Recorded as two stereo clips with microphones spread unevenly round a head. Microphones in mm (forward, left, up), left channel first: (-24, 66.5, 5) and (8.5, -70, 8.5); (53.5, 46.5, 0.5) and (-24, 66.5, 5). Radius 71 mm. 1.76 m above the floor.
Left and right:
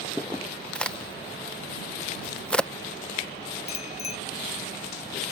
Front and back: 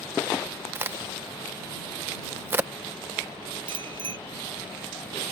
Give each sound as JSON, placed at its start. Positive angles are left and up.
{"t": 0.8, "sound": "a crack", "azimuth_deg": -175}
{"t": 3.7, "sound": "a bicycle bell", "azimuth_deg": 150}